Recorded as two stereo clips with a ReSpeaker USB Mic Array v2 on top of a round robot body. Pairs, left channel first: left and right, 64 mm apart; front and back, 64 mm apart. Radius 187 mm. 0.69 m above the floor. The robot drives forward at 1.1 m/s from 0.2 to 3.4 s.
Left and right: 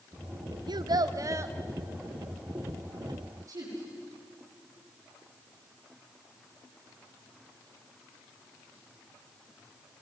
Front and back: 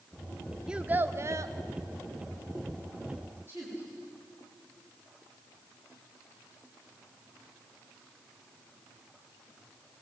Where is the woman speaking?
125° right, 7 m.